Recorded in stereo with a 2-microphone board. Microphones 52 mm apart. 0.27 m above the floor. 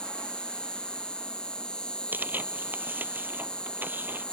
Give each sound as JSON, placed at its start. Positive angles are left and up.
{"t": 0.0, "sound": "an insect", "side_deg": 20}
{"t": 2.1, "sound": "tearing paper", "side_deg": -40}